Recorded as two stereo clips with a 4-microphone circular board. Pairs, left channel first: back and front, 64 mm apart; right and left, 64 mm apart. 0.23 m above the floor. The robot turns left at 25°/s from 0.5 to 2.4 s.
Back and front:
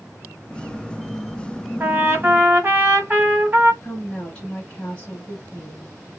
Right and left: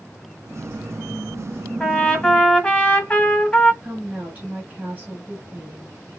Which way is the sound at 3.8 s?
130° left.